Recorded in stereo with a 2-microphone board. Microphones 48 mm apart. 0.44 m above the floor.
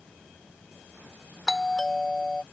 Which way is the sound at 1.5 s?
10° left (ahead or behind).